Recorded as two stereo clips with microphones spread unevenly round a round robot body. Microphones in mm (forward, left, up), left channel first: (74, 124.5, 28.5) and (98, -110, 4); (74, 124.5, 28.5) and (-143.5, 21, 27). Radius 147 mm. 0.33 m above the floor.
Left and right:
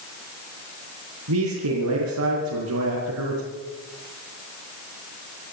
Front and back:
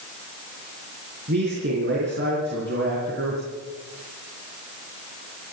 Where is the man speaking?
100° right, 5 m.